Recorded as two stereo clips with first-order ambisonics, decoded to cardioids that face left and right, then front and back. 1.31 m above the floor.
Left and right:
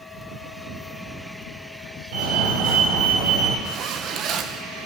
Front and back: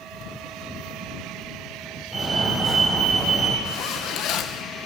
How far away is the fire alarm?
About 6 m.